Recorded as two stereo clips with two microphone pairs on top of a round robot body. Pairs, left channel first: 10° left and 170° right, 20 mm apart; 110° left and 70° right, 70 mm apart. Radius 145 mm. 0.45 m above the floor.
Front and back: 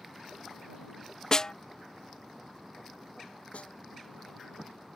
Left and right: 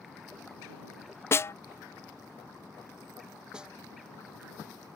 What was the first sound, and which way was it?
A snare drum, 55° left.